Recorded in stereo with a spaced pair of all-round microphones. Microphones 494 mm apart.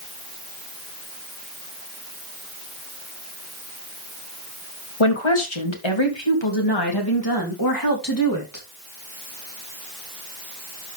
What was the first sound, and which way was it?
A woman speaking, 80° left.